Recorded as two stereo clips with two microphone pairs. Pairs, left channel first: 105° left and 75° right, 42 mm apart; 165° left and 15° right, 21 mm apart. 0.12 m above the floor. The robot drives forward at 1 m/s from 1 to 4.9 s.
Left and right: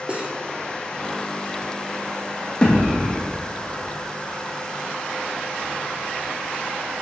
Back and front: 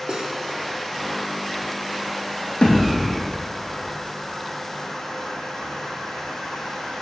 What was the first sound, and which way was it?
Cutlery clinking, 15° right.